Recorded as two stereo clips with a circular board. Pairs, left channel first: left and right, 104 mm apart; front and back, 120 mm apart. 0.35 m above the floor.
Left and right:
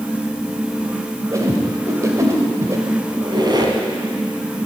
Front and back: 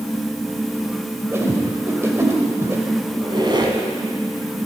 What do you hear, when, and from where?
1.3 s a whoosh: 125° right, 1.7 m
3.1 s a squeak: 130° right, 1.5 m